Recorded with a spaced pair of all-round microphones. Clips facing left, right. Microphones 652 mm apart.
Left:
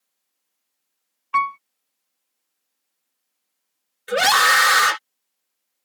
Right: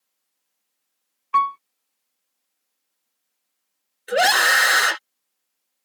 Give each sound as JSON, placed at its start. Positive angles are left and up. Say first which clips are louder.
{"t": 1.3, "sound": "a piano", "louder": "right 2 dB", "side_deg": 15}
{"t": 4.1, "sound": "a scream", "louder": "right 1 dB", "side_deg": 35}